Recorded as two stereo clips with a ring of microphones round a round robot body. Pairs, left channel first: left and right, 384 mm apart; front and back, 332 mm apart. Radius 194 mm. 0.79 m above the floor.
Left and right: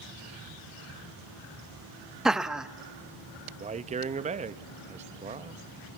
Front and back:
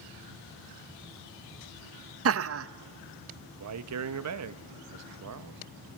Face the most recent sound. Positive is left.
turn(degrees=-160)